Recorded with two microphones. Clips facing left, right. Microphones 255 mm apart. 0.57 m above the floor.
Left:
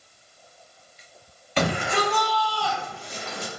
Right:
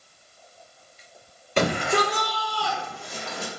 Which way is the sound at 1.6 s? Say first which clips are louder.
Right 2 dB; 50° right (ahead or behind).